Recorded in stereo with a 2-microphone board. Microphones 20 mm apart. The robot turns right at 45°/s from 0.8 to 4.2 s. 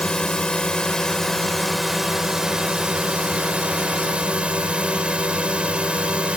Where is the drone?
135° left; by 6.4 s 75° right.